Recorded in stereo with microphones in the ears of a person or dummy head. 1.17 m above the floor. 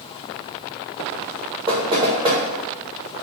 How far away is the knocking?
About 0.7 m.